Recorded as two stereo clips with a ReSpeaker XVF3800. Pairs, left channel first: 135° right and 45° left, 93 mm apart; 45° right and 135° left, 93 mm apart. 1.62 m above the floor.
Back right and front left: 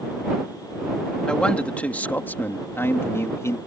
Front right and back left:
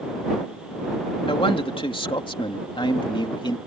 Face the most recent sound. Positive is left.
turn(degrees=-80)